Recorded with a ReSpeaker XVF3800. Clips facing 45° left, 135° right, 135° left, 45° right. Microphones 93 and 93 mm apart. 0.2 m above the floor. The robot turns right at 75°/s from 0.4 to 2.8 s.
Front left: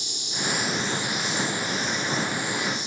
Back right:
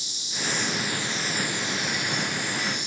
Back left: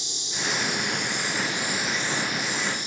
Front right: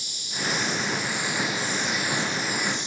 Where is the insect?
70° left, 3.5 m; by 2.9 s 110° right, 3.5 m.